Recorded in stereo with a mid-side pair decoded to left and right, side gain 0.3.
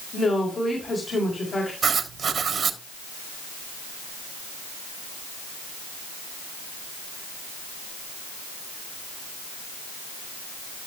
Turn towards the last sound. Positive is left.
turn(degrees=-65)